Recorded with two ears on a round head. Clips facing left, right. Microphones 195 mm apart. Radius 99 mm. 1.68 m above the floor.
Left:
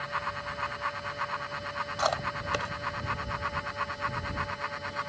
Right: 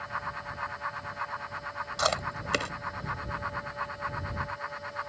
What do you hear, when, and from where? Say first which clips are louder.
2.0 s chewing: even; 35° right (ahead or behind)